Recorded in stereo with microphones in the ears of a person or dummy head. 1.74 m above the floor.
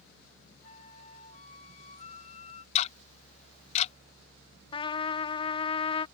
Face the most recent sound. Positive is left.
turn(degrees=25)  # may be behind; listen again after turning